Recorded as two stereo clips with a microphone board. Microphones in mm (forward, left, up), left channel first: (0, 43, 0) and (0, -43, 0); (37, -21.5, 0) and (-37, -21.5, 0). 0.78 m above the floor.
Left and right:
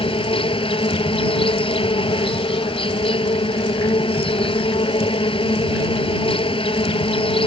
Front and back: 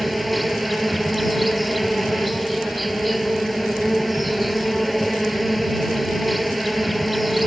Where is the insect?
90° left.